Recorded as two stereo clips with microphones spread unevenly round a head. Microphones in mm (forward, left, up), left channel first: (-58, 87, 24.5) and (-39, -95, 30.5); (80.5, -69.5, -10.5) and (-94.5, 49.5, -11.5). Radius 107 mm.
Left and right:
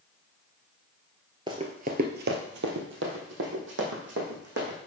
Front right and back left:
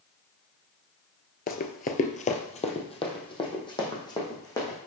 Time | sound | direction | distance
1.5 | running footsteps | 30° right | 1.1 m